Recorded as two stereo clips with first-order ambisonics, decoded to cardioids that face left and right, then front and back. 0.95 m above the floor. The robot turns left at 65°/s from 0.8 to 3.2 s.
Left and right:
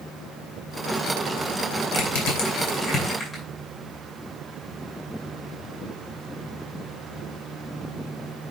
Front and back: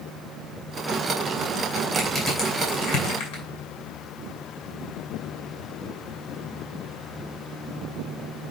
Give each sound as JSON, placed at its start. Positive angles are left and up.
{"t": 1.9, "sound": "crushing", "azimuth_deg": 85, "distance_m": 7.0}